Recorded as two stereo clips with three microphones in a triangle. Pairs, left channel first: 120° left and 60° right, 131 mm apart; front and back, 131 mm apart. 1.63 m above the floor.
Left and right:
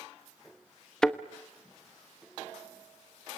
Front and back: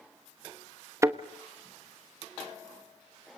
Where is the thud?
165° right, 1.0 m.